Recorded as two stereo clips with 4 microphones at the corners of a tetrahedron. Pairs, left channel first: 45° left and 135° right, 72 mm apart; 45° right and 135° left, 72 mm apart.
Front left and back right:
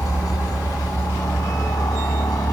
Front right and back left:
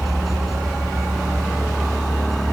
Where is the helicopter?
45° left.